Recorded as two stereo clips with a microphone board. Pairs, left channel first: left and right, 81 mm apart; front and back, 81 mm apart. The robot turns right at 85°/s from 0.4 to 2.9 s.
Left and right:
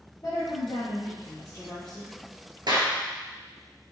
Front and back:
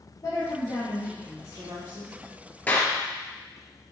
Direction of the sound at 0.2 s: 40° left.